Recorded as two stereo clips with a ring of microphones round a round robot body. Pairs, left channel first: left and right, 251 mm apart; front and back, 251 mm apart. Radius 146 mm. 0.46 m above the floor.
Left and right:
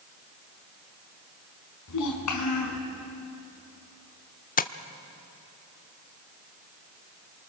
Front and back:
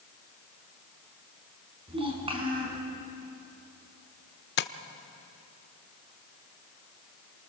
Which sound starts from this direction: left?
A child speaking, at 1.9 s.